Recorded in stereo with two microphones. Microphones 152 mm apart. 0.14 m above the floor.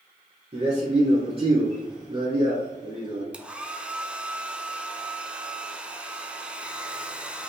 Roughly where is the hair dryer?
Centre.